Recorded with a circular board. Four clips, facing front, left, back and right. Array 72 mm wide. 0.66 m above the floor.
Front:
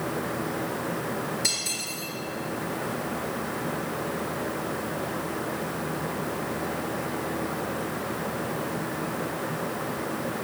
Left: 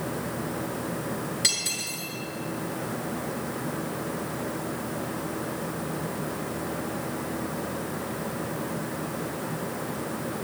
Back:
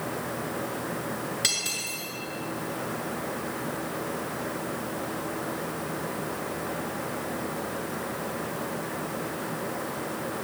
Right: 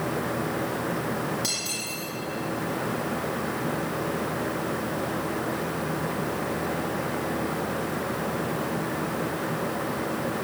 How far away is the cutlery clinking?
About 6 m.